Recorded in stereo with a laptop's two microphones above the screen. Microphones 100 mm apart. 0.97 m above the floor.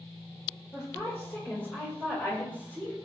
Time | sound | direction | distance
0.7 | a woman speaking | 25° left (ahead or behind) | 3.5 m